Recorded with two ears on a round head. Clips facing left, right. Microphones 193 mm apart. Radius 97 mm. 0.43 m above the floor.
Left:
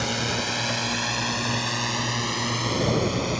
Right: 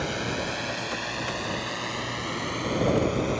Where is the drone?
60° left (ahead or behind).